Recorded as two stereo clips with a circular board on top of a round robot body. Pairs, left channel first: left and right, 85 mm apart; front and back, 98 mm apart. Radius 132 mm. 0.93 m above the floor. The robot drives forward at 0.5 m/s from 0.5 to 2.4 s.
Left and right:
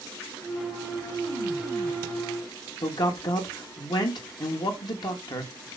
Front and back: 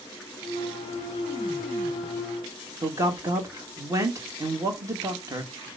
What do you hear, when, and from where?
2.8 s a man speaking: 120° left, 1.8 m